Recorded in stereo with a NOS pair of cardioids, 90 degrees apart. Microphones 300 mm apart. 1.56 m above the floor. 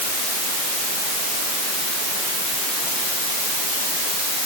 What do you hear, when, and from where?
Only background noise.